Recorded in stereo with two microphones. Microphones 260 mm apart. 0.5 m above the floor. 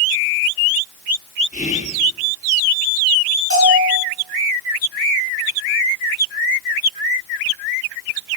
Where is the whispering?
30° left (ahead or behind), 0.8 m.